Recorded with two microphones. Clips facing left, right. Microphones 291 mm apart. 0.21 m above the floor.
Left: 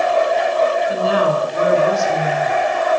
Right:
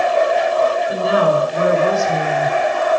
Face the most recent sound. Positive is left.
turn(degrees=-20)  # may be behind; listen again after turning